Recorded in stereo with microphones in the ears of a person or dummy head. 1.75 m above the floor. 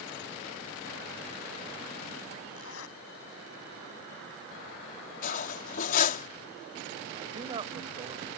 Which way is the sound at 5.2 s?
45° left (ahead or behind).